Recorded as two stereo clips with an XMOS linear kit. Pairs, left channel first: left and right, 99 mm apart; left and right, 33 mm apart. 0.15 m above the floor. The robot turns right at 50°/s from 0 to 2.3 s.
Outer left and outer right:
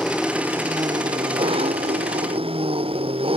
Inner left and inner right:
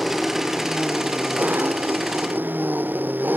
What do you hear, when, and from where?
0.0 s an engine running: 175° left; by 3.4 s 70° right